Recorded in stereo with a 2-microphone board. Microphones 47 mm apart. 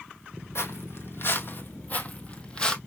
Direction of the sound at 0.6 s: 60° left (ahead or behind).